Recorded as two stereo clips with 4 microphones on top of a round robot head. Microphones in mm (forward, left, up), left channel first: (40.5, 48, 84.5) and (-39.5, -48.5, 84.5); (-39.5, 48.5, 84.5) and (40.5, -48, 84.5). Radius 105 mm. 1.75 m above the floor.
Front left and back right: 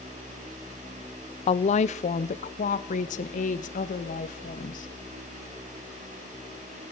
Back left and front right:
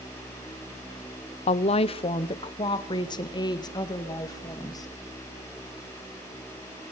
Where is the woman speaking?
90° left, 1.0 m; by 4.9 s 65° left, 3.5 m.